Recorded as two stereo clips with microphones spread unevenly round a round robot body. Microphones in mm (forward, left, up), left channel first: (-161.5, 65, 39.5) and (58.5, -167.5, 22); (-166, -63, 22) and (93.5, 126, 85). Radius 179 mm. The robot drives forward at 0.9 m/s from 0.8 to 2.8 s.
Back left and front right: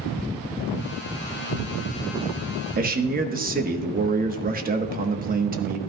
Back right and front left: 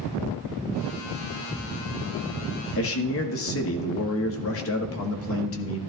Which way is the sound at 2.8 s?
105° right.